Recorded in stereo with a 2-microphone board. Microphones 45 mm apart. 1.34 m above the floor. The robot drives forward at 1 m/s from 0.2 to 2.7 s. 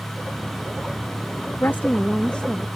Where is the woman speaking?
55° left (ahead or behind); by 2.7 s 15° left (ahead or behind).